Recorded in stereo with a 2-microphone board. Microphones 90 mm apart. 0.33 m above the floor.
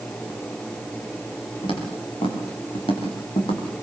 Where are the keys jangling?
I don't hear keys jangling.